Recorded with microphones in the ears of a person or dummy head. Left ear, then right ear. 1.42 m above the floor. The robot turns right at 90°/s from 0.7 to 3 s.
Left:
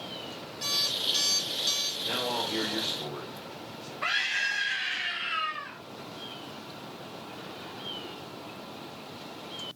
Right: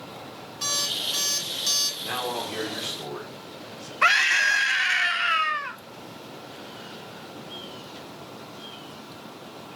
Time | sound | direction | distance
0.6 | an alarm clock | 165° right | 2.5 m
2.0 | a man speaking | 125° right | 3 m
4.0 | a scream | 55° right (ahead or behind) | 0.8 m